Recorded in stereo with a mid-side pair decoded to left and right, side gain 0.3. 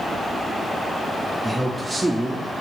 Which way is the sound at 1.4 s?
15° right.